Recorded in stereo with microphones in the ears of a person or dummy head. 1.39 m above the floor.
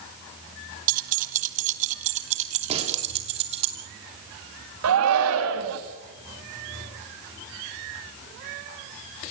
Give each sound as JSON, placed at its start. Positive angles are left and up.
{"t": 0.9, "sound": "keys jangling", "side_deg": -45, "distance_m": 1.1}
{"t": 2.7, "sound": "a gunshot", "side_deg": -35, "distance_m": 4.0}
{"t": 4.8, "sound": "a shout", "side_deg": -80, "distance_m": 2.0}